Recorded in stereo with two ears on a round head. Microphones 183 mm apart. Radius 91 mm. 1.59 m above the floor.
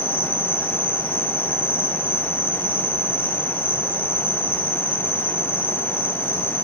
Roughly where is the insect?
Centre.